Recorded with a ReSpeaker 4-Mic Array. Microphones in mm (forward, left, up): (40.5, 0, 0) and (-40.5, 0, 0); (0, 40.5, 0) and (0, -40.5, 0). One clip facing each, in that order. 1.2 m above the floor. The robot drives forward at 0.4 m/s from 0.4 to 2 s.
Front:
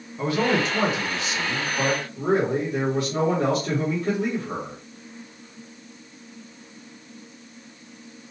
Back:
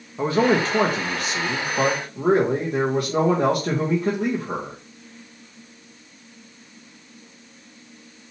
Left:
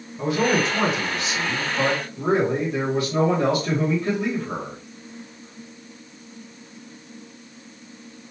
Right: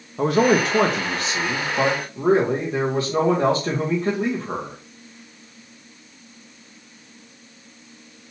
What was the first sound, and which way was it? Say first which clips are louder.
A man speaking: back 3 dB, right 4 dB; 120° right.